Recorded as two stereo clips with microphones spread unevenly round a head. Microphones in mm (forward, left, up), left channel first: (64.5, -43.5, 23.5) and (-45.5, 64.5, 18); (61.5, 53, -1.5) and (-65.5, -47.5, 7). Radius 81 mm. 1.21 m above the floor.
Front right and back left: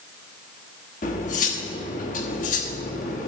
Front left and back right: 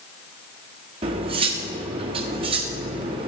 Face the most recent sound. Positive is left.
turn(degrees=-85)